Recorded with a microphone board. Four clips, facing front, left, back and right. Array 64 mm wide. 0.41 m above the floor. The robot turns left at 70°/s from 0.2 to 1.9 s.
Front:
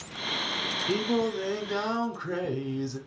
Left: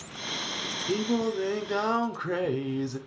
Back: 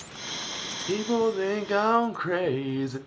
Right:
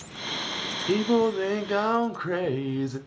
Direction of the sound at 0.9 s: 95° right.